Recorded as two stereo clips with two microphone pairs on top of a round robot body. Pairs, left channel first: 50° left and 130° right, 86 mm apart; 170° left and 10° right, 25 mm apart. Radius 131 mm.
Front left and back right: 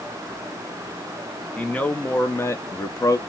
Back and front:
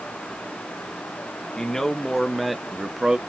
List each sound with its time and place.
1.6 s a man speaking: 130° left, 1.2 m; by 3.2 s 60° left, 0.8 m